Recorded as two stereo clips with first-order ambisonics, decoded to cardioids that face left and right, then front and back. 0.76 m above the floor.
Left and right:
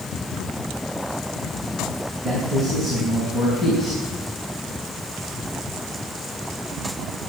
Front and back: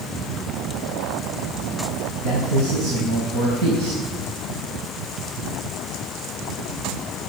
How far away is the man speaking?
About 4.5 m.